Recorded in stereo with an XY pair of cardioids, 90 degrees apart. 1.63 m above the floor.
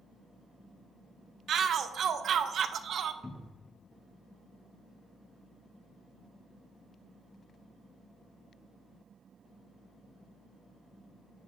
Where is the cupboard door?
20° left, 0.8 m.